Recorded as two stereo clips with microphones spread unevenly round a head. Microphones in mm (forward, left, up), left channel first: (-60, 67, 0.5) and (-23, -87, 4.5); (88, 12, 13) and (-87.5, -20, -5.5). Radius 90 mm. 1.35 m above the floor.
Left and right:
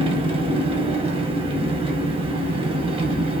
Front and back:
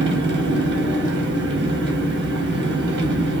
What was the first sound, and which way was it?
An engine running, 135° right.